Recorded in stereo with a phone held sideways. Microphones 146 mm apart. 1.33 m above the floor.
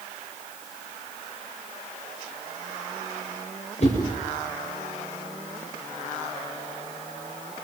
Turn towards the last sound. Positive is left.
turn(degrees=50)  # may be behind; listen again after turning